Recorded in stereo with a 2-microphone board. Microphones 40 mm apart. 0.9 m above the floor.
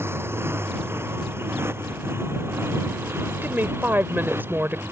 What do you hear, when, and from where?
0.0 s a motorcycle: 80° right; by 4.9 s 75° right (ahead or behind)
3.4 s a woman speaking: 60° right (ahead or behind)